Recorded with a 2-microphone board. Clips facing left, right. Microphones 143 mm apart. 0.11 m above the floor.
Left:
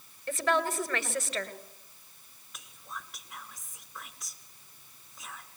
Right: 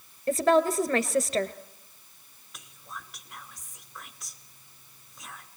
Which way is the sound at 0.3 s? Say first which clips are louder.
Right 7 dB; 40° right (ahead or behind).